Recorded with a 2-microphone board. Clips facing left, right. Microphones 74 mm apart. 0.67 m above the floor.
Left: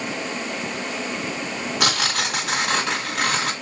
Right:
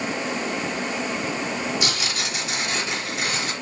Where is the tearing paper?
80° left, 3 m.